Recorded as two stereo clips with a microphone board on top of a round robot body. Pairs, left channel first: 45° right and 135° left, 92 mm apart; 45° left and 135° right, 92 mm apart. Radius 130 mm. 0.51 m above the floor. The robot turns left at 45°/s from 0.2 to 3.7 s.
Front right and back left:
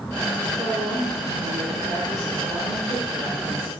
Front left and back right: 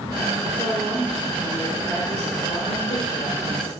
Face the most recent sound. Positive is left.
turn(degrees=30)